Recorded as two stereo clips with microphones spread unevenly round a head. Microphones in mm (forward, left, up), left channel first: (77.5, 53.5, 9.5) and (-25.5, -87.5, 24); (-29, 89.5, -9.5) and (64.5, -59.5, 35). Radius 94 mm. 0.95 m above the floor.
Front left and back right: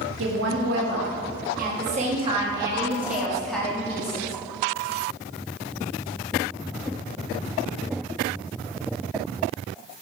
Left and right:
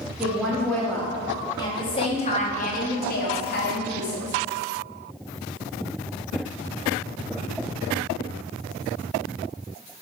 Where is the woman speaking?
145° right, 2.5 m; by 4.4 s 125° left, 2.5 m.